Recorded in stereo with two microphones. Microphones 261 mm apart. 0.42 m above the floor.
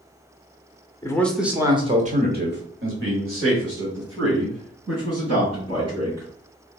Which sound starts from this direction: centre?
A man speaking, at 1.0 s.